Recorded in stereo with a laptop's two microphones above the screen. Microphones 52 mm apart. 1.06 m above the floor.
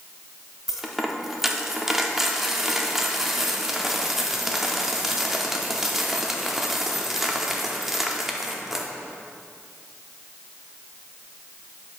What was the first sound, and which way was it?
A dropped coin, 5° right (ahead or behind).